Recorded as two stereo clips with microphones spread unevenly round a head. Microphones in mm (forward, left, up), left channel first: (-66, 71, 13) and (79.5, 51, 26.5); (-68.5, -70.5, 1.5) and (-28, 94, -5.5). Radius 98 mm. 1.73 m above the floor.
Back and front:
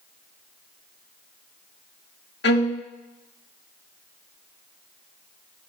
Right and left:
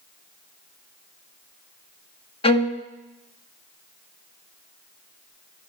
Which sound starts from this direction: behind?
A violin, at 2.4 s.